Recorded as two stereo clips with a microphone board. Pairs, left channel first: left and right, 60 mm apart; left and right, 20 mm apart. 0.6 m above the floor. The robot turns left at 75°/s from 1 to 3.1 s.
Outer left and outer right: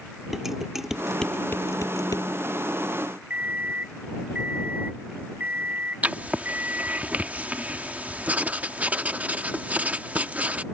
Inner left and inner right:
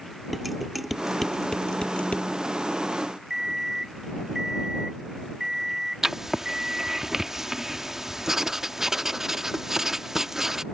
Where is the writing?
25° right (ahead or behind).